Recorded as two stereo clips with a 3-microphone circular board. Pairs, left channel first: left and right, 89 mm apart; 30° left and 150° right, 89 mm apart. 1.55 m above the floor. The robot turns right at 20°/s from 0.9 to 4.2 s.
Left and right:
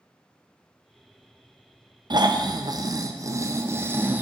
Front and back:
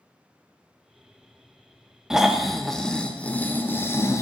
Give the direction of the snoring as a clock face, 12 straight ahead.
2 o'clock.